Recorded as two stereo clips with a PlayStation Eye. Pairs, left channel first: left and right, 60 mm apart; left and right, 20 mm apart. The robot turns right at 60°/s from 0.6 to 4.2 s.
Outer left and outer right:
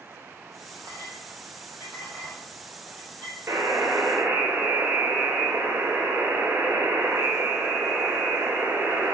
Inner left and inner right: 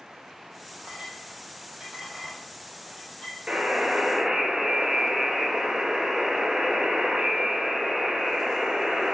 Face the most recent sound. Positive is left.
turn(degrees=-55)